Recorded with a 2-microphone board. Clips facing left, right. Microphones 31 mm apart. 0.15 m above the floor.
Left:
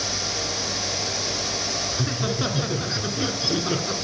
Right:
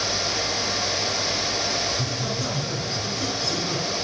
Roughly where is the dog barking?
I don't hear a dog barking.